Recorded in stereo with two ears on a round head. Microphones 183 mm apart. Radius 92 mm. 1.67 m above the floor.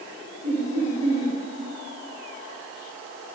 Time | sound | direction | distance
0.4 | laughter | 35° right (ahead or behind) | 8.5 m